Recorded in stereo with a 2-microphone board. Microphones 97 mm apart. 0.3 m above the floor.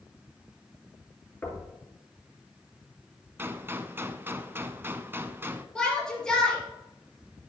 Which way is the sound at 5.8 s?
10° left (ahead or behind).